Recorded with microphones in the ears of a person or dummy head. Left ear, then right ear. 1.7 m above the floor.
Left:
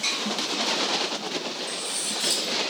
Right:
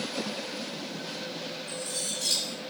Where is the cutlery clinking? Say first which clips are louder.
Left 4 dB; 60° left (ahead or behind), 2 m.